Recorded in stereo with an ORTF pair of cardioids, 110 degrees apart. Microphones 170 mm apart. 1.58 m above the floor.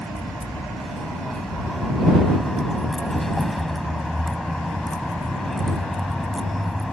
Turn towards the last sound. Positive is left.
turn(degrees=0)